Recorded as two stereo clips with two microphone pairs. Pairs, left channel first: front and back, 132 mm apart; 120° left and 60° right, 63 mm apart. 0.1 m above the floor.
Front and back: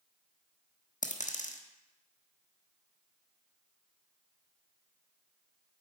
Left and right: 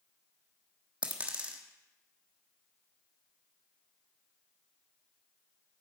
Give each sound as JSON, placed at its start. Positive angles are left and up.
{"t": 1.0, "sound": "a dropped coin", "azimuth_deg": 5, "distance_m": 1.2}